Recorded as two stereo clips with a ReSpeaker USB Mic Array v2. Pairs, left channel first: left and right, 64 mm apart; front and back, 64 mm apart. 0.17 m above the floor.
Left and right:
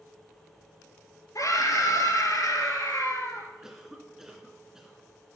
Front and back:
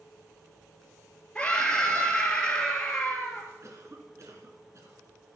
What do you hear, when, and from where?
1.4 s a scream: 75° left, 3.5 m
3.6 s a cough: 170° right, 2.0 m